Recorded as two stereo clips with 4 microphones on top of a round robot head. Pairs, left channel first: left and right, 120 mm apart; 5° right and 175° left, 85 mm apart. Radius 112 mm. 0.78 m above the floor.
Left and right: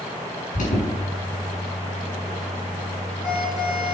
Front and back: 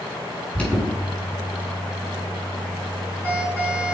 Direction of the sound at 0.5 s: 70° left.